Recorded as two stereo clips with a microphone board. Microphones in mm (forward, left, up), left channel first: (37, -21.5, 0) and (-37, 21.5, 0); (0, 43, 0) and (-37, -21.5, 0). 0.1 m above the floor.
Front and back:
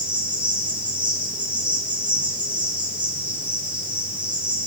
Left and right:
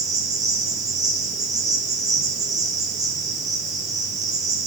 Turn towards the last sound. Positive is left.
turn(degrees=-140)